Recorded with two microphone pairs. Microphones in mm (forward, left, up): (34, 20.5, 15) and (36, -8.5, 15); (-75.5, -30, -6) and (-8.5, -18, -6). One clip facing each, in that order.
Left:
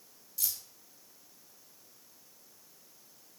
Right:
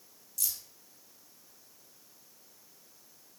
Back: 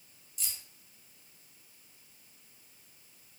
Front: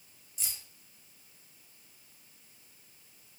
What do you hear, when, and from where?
0.4 s keys jangling: 60° left, 0.9 m